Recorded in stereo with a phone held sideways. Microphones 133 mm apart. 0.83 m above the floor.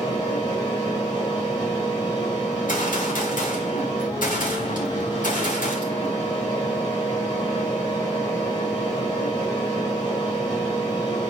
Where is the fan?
35° left (ahead or behind), 4 m.